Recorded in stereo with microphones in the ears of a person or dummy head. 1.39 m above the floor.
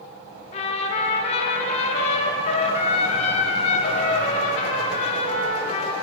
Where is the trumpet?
35° left (ahead or behind), 0.8 m.